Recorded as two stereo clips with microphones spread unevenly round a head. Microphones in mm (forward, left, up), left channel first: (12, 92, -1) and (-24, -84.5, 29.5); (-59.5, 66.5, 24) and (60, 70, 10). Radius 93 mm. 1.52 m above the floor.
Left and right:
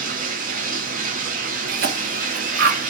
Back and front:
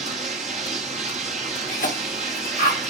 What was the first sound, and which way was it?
Running water, 55° right.